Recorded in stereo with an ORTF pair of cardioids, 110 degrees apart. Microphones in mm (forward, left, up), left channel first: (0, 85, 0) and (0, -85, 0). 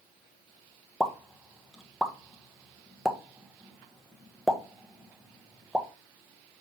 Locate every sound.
1.0 s a pop: straight ahead, 1.2 m